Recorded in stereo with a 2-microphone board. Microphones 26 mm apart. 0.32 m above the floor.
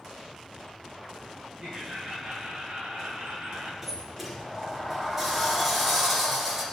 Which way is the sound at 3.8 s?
10° right (ahead or behind).